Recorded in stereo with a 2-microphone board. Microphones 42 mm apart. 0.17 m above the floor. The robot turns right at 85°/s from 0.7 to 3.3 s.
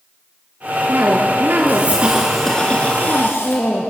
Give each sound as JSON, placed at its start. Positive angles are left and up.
{"t": 0.9, "sound": "a cough", "azimuth_deg": -125, "distance_m": 2.0}